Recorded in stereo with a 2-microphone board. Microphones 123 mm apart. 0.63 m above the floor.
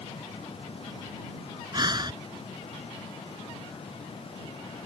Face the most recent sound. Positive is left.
turn(degrees=-35)  # may be behind; listen again after turning